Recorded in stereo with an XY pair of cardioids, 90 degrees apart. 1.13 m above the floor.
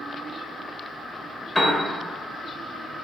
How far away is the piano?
About 1.0 m.